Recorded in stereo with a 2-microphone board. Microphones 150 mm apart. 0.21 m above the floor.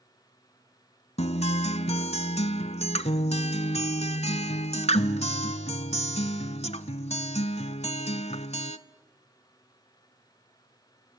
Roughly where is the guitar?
Left.